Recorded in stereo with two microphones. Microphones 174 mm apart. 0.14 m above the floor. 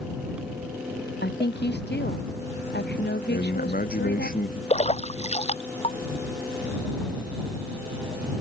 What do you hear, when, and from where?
1.2 s a woman speaking: 75° left (ahead or behind)
3.3 s a man speaking: 55° left (ahead or behind)
4.7 s a splash: 40° left (ahead or behind)